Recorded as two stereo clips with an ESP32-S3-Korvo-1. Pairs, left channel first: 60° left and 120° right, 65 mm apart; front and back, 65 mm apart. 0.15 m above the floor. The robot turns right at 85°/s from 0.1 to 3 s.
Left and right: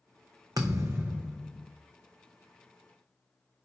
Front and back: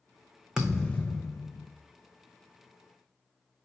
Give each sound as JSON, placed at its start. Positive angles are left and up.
{"t": 0.6, "sound": "a thud", "azimuth_deg": -100, "distance_m": 0.7}